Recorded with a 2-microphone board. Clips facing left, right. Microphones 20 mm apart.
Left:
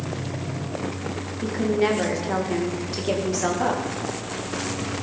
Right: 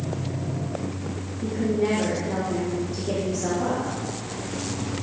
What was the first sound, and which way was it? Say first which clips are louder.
A woman speaking: left 2 dB; 55° left (ahead or behind).